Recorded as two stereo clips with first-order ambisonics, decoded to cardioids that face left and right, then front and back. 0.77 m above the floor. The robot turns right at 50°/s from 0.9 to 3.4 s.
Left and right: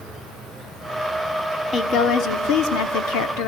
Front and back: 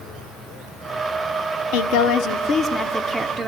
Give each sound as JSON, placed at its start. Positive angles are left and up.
{"t": 1.7, "sound": "a woman speaking", "azimuth_deg": 20, "distance_m": 1.5}